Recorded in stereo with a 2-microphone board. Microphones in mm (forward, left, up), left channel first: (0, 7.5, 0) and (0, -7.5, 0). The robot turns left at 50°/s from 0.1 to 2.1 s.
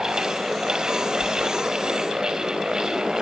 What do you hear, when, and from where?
1.2 s a sliding door: centre (ahead or behind), 3.5 m; by 1.3 s 5° left (ahead or behind), 3.5 m